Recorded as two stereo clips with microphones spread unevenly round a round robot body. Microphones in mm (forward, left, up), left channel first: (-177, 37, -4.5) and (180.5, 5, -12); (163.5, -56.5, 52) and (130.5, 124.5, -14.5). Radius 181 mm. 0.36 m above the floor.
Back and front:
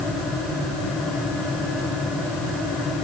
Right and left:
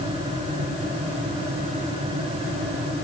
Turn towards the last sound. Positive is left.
No sound to turn to.